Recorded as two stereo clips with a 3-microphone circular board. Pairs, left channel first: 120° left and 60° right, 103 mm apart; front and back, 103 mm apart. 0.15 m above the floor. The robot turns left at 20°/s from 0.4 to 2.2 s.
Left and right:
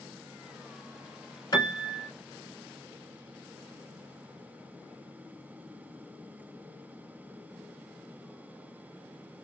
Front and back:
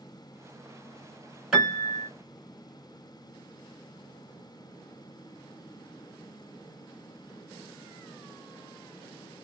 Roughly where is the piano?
Left.